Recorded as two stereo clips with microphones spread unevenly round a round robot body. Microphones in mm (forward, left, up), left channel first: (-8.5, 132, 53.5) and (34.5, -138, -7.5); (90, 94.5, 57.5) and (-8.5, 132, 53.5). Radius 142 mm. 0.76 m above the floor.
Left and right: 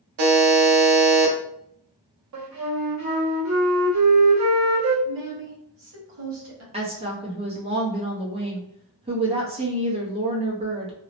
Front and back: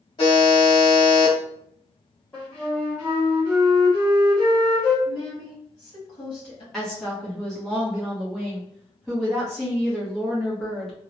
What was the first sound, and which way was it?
A buzzer, 85° right.